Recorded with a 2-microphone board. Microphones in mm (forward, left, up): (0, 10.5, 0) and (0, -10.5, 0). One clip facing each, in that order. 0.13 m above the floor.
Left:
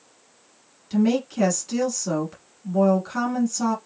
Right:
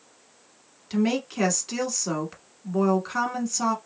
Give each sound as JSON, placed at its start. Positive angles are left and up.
{"t": 0.9, "sound": "a woman speaking", "side_deg": -20, "distance_m": 1.1}